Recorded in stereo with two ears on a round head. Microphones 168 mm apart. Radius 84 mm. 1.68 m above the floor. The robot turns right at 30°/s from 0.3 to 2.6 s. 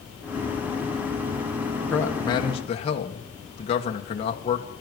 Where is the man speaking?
10° left (ahead or behind), 1.8 m; by 4.7 s 30° left (ahead or behind), 1.8 m.